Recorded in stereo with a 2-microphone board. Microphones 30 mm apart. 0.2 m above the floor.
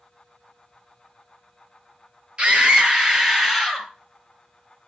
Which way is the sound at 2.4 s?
40° right (ahead or behind).